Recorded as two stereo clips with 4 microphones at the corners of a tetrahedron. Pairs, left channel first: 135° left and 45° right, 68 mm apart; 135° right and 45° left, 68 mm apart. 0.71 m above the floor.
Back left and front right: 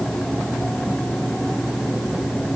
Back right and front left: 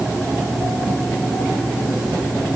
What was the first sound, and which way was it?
Only background noise.